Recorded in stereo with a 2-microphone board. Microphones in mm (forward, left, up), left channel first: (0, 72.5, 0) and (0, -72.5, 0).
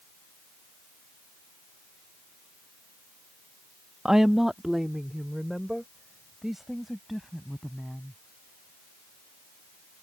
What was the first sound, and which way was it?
A woman speaking, 5° right (ahead or behind).